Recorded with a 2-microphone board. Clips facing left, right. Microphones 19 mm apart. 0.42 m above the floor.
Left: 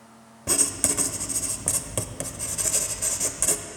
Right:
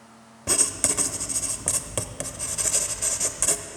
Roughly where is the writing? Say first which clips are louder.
Even; centre.